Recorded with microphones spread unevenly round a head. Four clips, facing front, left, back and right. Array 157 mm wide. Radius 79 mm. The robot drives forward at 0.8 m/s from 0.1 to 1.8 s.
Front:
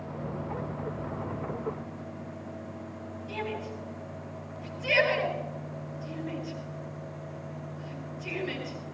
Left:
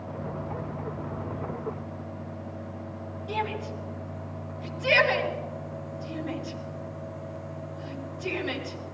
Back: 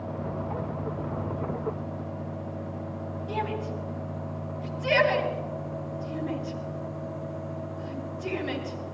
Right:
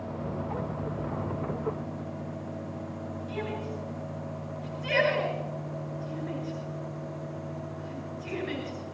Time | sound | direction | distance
3.3 | a shout | 125° left | 9 m